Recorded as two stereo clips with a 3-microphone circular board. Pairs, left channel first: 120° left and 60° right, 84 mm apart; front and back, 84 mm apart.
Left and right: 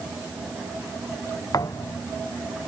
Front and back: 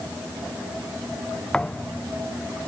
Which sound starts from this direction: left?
A thud, at 1.5 s.